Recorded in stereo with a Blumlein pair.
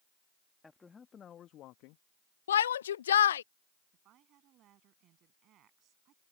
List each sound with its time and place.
0.6 s a man speaking: 10° left; by 2.0 s 50° left
2.5 s a shout: 65° left
3.9 s a woman speaking: 35° right